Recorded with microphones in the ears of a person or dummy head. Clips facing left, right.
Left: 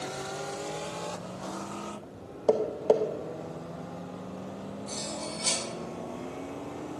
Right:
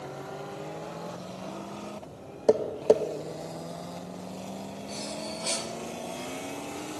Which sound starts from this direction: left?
Cutlery clinking, at 4.9 s.